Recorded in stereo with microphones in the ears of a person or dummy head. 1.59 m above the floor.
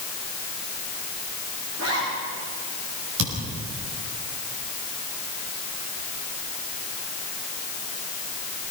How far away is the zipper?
About 9.5 m.